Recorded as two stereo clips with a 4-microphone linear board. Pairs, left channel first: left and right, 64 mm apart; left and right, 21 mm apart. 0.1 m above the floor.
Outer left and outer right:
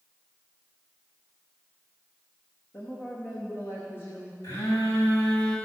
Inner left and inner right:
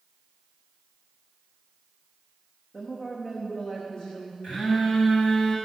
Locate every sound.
2.7 s a woman speaking: 40° left (ahead or behind), 6.5 m
4.4 s a phone buzzing: 75° left (ahead or behind), 7 m